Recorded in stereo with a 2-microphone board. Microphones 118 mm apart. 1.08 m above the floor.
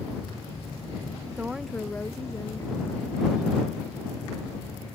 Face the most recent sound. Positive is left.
turn(degrees=45)  # may be behind; listen again after turning